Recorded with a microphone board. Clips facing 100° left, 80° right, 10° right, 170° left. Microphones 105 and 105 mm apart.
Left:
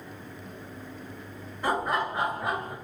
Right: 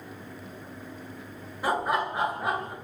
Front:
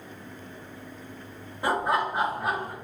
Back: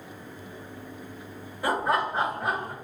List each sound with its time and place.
1.6 s laughter: 10° right, 0.9 m; by 2.7 s 100° right, 0.9 m